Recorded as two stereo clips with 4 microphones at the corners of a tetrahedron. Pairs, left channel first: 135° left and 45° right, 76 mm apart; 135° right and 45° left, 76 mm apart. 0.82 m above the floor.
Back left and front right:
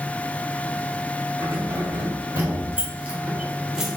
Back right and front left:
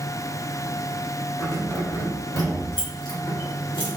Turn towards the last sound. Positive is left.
turn(degrees=-130)